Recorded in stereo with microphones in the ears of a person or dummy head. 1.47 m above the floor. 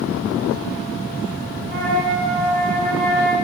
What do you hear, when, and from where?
1.7 s a flute: 60° left (ahead or behind), 4.5 m